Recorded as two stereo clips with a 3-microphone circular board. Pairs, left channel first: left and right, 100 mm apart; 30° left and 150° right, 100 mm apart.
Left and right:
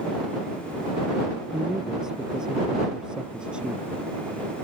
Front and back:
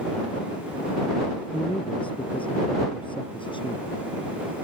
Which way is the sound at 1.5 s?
5° right.